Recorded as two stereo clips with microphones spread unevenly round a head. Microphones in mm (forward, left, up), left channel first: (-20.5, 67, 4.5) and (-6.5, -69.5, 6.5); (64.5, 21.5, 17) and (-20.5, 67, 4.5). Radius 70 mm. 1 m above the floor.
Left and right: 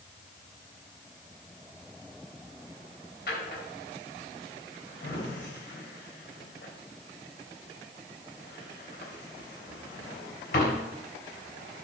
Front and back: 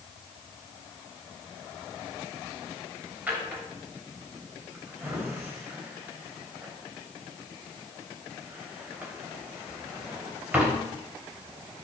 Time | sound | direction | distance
3.3 | a drawer | 80° left | 3 m